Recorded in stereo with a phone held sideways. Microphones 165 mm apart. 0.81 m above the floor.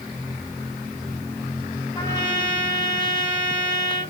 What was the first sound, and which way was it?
A trumpet, 30° left (ahead or behind).